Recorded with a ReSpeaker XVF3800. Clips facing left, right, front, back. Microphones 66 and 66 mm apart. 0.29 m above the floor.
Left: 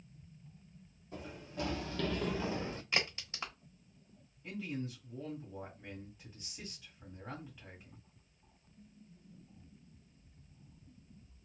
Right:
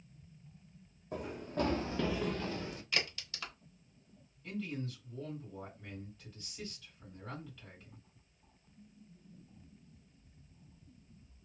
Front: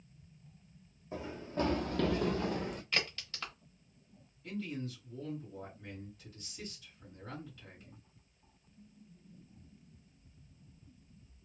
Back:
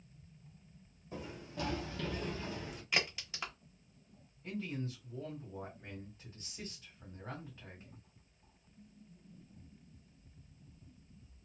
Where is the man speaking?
155° left, 1.7 m.